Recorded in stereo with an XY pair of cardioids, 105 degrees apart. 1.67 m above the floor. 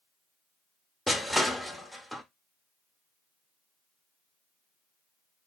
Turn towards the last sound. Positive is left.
turn(degrees=0)